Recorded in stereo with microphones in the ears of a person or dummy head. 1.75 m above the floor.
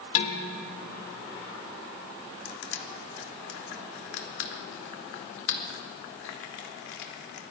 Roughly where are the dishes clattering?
Left.